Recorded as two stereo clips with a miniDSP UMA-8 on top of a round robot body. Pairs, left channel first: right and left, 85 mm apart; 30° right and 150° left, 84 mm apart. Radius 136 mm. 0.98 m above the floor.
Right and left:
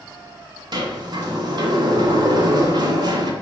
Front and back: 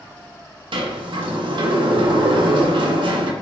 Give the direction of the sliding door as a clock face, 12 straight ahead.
8 o'clock.